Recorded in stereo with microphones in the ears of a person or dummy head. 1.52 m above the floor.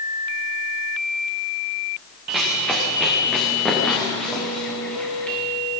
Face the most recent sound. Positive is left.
turn(degrees=10)  # may be behind; listen again after turning